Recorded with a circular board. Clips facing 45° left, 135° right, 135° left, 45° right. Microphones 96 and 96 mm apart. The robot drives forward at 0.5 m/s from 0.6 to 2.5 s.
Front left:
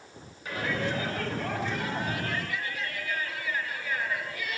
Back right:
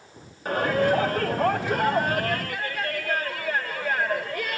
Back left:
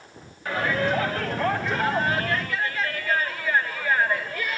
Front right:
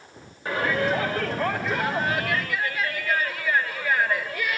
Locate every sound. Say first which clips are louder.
0.5 s a shout: back right 9 dB, even; 110° right, 2.5 m; by 4.6 s 130° right, 3 m